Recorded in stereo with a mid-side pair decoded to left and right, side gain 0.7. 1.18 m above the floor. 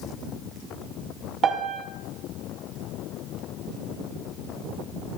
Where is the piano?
40° right, 3 m.